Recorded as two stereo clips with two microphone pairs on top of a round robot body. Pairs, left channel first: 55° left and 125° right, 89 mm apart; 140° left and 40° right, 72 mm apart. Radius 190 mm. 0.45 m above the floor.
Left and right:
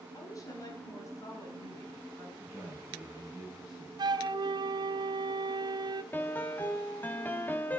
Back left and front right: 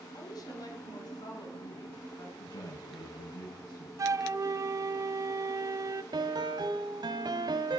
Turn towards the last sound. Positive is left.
turn(degrees=-10)